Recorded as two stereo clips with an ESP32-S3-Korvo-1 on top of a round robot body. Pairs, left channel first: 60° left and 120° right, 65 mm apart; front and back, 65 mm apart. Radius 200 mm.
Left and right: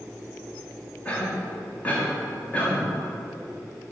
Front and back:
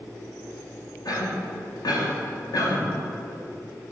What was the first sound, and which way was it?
A cough, 10° right.